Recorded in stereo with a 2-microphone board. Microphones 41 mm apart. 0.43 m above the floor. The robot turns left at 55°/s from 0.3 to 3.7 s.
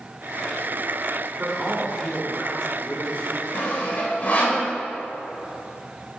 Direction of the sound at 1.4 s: 150° right.